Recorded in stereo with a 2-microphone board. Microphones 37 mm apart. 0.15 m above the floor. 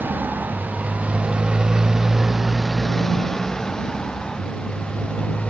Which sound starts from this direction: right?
A motorcycle, at 0.0 s.